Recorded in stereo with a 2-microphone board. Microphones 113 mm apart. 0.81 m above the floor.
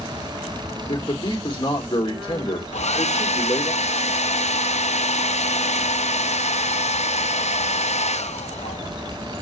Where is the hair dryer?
75° left (ahead or behind), 0.6 m.